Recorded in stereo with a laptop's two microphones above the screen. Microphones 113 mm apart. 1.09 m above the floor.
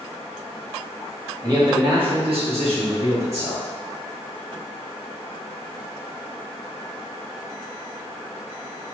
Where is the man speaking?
35° right (ahead or behind), 1.3 m; by 3.6 s 75° right (ahead or behind), 1.6 m.